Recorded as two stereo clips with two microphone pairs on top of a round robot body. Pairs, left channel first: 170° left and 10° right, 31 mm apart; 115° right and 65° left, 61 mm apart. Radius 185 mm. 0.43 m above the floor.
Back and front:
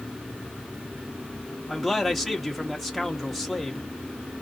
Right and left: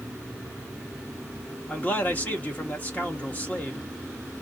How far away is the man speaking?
About 1.4 m.